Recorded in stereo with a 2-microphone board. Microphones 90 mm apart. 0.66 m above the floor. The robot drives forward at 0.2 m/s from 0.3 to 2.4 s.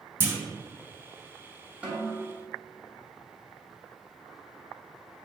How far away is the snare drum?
About 1.3 m.